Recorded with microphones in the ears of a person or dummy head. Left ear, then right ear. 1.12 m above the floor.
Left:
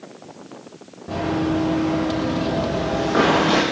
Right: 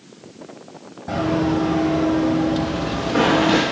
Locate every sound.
1.1 s running footsteps: 25° right (ahead or behind), 2.5 m; by 3.6 s 35° left (ahead or behind), 3 m